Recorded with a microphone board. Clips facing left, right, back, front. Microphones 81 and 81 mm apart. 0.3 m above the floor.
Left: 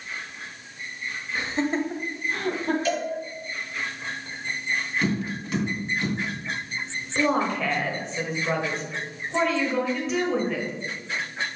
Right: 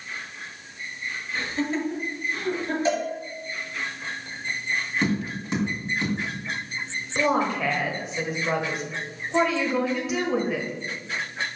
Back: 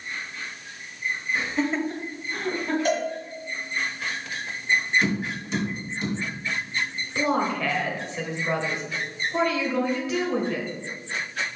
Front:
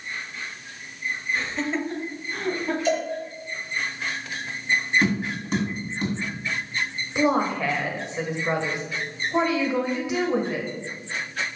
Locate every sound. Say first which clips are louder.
1.4 s laughter: left 2 dB, back 3 dB; 135° left, 0.9 m; by 2.8 s 85° left, 2 m
2.9 s a cowbell: right 2 dB, front 1 dB; 150° right, 1.7 m
5.0 s tapping: right 1 dB, front 2 dB; 30° right, 2.5 m
7.2 s a woman speaking: even, front 2 dB; 20° right, 1.1 m